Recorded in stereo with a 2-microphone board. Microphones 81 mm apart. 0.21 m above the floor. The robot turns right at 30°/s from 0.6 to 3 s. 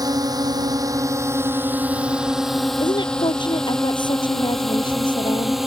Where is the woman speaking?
70° left (ahead or behind); by 5.6 s 75° left (ahead or behind).